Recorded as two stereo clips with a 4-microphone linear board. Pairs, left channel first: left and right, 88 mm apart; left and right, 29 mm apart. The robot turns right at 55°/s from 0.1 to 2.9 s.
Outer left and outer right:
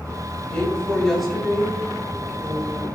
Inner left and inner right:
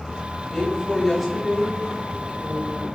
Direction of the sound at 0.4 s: 15° left (ahead or behind).